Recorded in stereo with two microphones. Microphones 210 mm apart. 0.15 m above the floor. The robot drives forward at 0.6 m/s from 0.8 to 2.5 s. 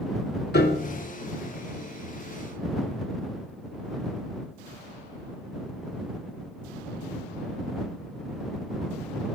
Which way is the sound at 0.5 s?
55° left (ahead or behind).